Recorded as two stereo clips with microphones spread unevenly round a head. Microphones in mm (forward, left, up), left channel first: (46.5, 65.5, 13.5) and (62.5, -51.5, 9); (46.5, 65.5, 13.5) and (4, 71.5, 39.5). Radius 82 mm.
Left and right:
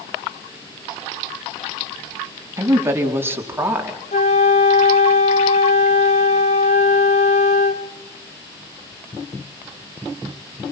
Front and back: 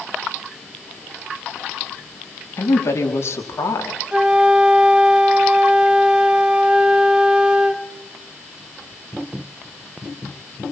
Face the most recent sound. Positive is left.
turn(degrees=130)